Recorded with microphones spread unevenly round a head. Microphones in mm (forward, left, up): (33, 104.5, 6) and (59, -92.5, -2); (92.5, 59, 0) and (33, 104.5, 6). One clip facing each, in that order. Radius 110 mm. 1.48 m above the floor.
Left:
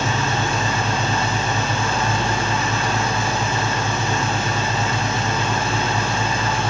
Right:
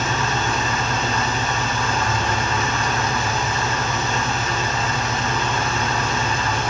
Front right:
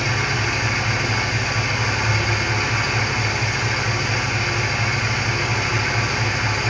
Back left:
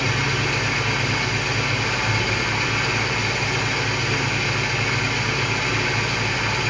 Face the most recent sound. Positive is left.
turn(degrees=40)